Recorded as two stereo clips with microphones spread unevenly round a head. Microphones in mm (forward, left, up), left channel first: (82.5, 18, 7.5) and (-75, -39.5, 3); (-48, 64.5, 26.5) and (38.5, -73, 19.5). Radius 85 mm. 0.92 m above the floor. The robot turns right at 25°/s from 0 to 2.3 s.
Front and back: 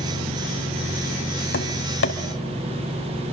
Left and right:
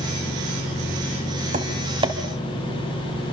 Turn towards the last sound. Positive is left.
turn(degrees=15)